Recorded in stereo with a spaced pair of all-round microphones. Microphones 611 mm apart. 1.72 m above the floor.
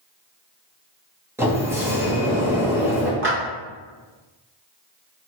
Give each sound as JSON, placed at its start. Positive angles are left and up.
{"t": 1.4, "sound": "a sliding door", "side_deg": -5, "distance_m": 0.9}
{"t": 3.2, "sound": "a clap", "side_deg": -20, "distance_m": 1.3}